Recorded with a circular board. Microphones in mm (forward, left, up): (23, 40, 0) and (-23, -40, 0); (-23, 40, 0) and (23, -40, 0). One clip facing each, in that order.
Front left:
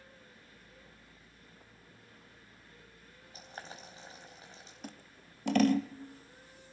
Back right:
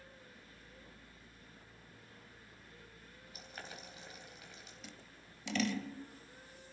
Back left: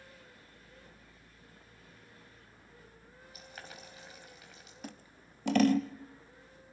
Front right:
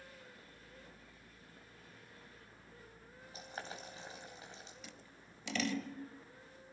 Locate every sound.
3.3 s boiling: straight ahead, 3.5 m
4.8 s scissors: 90° left, 0.8 m